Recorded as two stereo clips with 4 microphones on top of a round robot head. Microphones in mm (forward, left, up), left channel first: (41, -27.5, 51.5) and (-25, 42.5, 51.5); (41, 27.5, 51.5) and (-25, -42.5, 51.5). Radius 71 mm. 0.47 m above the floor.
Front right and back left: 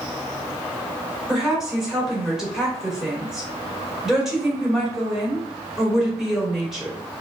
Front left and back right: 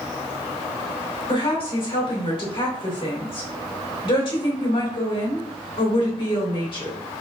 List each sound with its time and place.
1.3 s a woman speaking: 50° left, 2 m